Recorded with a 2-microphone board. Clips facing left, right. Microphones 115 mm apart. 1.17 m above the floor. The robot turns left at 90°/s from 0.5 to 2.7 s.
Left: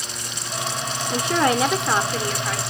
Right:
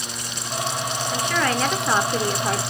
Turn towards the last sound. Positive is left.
turn(degrees=-80)